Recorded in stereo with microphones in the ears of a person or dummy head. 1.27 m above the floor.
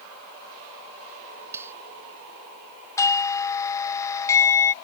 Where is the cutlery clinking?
10° right (ahead or behind).